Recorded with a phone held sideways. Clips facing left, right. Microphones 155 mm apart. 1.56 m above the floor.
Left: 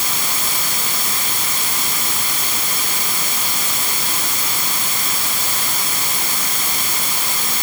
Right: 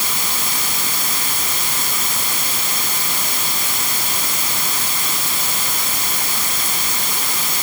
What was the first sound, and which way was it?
Only background noise.